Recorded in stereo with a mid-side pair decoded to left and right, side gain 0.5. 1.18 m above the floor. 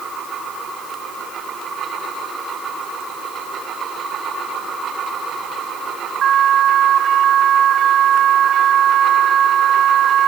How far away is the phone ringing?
I don't hear a phone ringing.